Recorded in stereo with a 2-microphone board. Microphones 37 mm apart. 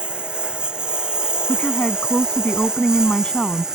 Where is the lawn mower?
25° right (ahead or behind); by 3.8 s 15° right (ahead or behind).